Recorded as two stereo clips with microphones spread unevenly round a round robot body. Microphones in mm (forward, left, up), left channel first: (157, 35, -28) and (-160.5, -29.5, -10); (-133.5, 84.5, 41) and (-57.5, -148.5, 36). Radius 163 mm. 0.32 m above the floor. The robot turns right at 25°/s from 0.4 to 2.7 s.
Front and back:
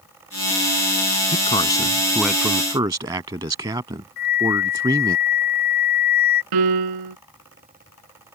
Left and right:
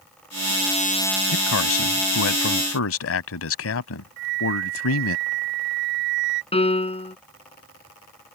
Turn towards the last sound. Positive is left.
turn(degrees=170)